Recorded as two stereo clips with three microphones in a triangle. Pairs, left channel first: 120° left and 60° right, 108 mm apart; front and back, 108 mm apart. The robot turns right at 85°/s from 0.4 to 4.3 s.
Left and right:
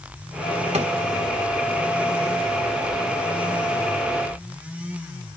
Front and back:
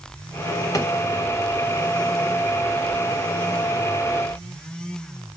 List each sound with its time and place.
0.7 s a drawer: 60° right, 2.5 m; by 0.9 s 45° right, 2.5 m